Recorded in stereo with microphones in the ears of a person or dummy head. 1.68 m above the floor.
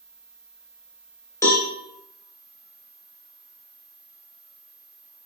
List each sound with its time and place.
1.4 s a cowbell: 15° left (ahead or behind), 0.5 m